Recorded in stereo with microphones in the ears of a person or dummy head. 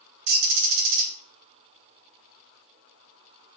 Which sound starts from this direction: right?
A bird, at 0.3 s.